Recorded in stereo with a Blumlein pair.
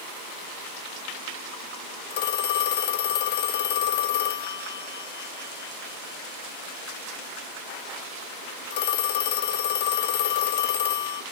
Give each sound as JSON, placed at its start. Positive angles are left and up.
{"t": 2.1, "sound": "a phone ringing", "azimuth_deg": 50, "distance_m": 0.9}